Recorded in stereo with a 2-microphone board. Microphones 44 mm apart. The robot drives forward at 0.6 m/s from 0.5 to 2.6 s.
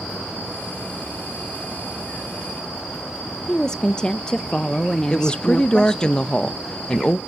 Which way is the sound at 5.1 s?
20° left (ahead or behind).